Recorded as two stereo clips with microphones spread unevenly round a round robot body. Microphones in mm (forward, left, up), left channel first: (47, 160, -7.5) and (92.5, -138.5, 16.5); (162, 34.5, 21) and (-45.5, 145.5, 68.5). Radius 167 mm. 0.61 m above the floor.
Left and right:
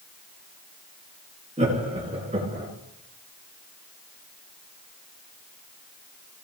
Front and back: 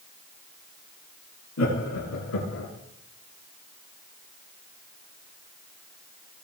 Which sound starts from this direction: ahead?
Laughter, at 1.6 s.